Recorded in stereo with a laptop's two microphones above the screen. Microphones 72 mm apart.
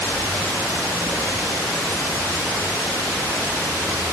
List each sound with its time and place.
Only background noise.